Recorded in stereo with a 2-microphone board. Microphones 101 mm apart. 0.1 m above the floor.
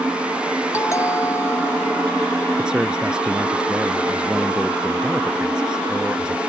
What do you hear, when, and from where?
0.7 s a doorbell: 30° left (ahead or behind)
2.6 s a man speaking: 10° right (ahead or behind)